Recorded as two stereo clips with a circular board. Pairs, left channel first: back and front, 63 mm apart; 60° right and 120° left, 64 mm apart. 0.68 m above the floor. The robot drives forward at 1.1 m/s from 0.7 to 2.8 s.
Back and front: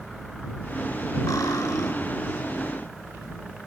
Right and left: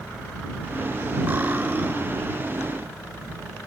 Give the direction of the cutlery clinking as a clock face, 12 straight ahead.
6 o'clock.